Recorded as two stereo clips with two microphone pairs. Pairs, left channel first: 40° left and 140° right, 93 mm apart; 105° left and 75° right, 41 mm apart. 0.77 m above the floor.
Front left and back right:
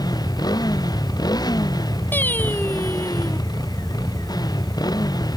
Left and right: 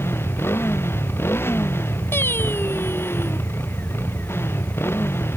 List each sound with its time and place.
0.0 s a motorcycle: 85° left
2.1 s singing: 110° left